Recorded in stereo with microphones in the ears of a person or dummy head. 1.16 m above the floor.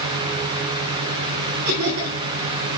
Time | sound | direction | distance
1.6 | laughter | 45° right (ahead or behind) | 8 m